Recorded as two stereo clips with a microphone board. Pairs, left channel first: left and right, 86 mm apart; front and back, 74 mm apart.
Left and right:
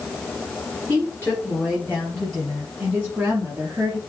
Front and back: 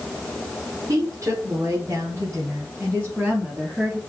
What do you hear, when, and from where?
0.9 s a woman speaking: 145° left, 2.5 m; by 4.0 s 105° right, 1.8 m